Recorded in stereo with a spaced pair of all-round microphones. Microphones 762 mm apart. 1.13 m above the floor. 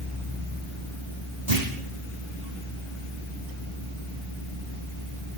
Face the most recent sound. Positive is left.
turn(degrees=-55)  # may be behind; listen again after turning